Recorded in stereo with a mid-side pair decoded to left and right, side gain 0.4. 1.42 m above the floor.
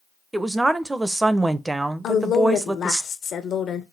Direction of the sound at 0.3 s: 20° right.